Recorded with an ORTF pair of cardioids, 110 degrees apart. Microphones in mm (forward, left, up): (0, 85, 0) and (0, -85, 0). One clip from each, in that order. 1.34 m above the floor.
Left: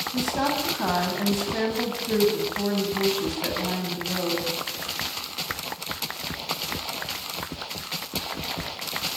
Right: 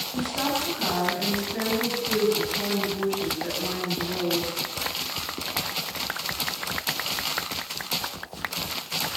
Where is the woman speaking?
40° left, 10 m.